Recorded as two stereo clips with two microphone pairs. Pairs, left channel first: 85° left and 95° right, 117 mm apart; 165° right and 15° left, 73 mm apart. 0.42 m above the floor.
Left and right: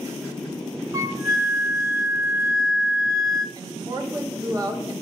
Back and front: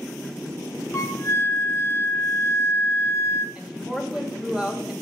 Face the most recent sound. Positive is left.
turn(degrees=-60)